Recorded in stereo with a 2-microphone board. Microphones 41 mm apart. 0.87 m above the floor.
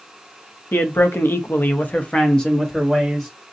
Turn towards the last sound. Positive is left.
turn(degrees=0)  # may be behind; listen again after turning